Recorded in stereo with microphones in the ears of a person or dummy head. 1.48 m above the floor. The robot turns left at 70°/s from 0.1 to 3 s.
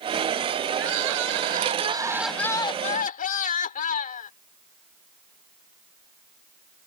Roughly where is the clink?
I don't hear a clink.